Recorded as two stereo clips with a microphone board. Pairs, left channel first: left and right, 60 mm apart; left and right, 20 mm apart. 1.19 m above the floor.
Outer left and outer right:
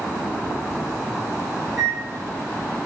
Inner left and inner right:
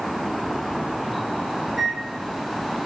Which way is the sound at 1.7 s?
Centre (ahead or behind).